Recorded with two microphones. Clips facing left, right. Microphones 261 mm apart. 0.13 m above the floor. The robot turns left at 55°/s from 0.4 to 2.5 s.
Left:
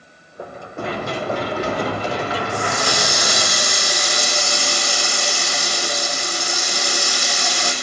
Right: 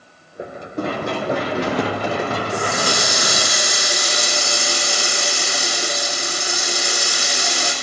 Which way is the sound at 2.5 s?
40° right (ahead or behind).